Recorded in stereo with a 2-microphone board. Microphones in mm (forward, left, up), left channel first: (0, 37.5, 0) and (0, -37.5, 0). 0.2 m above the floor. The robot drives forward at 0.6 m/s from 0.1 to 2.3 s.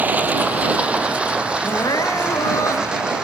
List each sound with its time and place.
0.0 s running water: 20° right (ahead or behind), 1.5 m; by 3.2 s 10° right (ahead or behind), 2.5 m
1.6 s crying: 65° left (ahead or behind), 1.2 m; by 3.1 s 50° left (ahead or behind), 1.4 m